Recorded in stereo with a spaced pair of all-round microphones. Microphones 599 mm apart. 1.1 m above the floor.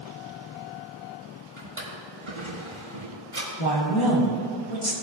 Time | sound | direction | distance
1.6 | a drawer | 50° right (ahead or behind) | 4 m
3.6 | a woman speaking | 50° left (ahead or behind) | 2 m